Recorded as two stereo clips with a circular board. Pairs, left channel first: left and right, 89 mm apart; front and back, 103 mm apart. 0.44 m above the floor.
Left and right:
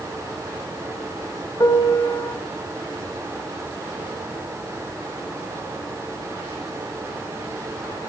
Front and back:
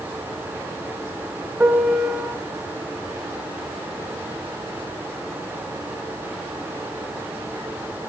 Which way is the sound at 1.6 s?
110° left.